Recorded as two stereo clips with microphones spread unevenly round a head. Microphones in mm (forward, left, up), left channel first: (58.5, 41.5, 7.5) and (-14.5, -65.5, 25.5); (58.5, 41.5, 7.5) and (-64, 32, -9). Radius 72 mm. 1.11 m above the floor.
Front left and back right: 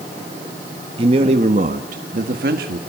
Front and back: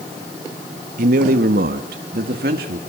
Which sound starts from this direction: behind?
A man speaking, at 1.0 s.